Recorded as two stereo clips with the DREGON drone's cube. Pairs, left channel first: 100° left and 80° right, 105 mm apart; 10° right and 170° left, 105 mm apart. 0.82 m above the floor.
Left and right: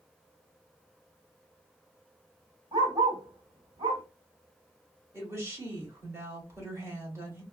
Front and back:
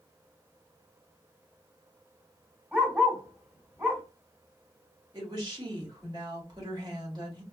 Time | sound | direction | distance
2.7 | a dog barking | 120° right | 1.8 m
5.1 | a woman speaking | 140° right | 1.6 m